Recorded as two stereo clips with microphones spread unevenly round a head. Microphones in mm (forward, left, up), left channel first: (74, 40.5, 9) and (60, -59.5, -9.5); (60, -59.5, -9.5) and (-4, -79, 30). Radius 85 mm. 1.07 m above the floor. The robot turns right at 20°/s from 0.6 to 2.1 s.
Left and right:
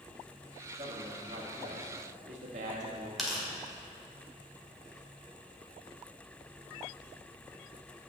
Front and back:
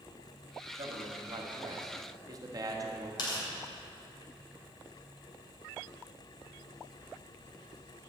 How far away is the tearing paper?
About 2.5 m.